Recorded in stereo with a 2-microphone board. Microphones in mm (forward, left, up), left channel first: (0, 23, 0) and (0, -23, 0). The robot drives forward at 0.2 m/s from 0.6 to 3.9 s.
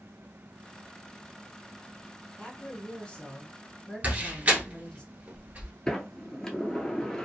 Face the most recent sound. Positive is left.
turn(degrees=15)  # may be behind; listen again after turning